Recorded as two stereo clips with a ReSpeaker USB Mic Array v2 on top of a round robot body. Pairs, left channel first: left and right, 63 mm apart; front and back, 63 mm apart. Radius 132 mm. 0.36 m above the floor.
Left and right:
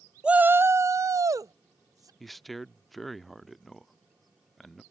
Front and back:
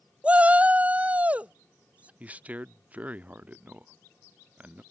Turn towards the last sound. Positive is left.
turn(degrees=175)